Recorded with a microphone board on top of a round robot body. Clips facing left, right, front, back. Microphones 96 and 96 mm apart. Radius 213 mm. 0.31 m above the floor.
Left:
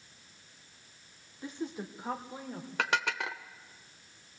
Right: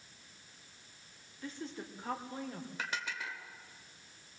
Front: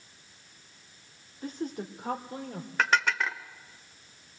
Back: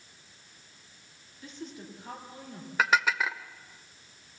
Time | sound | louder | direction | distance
1.4 | a woman speaking | left 5 dB, front 8 dB | 25° left | 1.8 m
2.8 | dishes clattering | left 10 dB, back 1 dB | 95° left | 1.2 m